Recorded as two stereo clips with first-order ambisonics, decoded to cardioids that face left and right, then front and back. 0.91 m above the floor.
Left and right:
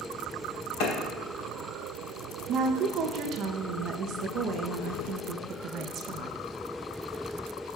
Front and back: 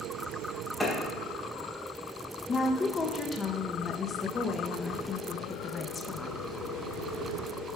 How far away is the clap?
About 3.5 m.